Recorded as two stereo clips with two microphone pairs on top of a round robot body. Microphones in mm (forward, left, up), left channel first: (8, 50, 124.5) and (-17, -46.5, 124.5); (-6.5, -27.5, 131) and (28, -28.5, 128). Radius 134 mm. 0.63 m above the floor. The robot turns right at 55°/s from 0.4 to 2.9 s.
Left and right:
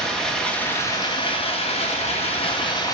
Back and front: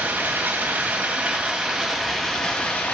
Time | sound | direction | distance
0.0 | running water | 10° right | 2.5 m